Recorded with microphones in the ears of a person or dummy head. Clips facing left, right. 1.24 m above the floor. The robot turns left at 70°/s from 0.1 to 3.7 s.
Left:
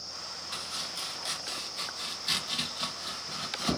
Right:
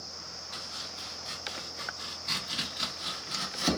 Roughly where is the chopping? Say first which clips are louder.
Left 2 dB; left.